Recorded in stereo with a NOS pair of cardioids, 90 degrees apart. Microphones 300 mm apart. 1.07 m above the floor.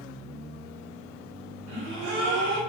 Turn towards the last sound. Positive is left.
turn(degrees=-65)